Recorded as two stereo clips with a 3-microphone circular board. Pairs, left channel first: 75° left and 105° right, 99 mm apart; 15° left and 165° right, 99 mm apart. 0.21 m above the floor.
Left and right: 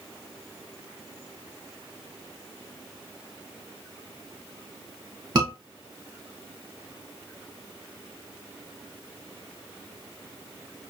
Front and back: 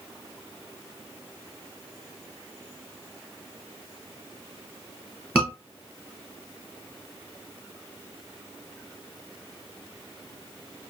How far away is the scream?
About 2.5 m.